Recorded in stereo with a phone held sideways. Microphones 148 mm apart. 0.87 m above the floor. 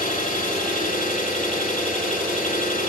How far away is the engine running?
About 9.5 m.